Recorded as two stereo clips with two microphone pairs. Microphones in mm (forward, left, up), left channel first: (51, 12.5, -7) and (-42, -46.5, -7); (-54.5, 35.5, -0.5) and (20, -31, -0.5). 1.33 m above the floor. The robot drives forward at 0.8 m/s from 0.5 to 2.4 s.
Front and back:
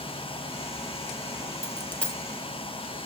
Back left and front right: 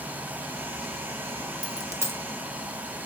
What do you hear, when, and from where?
1.6 s a dropped coin: 15° right, 0.8 m; by 2.2 s 55° right, 0.6 m